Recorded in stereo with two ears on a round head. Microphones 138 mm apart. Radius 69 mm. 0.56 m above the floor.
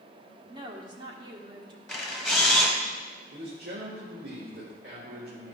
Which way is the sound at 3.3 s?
60° right (ahead or behind).